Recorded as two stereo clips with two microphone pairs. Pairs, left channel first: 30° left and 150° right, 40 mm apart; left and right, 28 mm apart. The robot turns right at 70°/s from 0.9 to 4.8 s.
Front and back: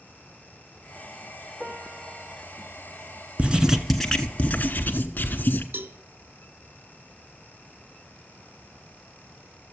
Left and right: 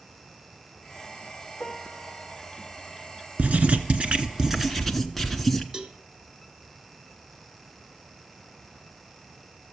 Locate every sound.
1.6 s a piano: 125° left, 1.8 m; by 2.4 s straight behind, 1.8 m
3.4 s writing: 95° right, 0.9 m; by 5.6 s 5° left, 0.9 m
5.7 s a cowbell: 155° right, 0.6 m